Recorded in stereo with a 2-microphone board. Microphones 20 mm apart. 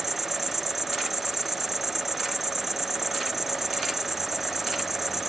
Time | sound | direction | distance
0.0 | an insect | 20° right (ahead or behind) | ?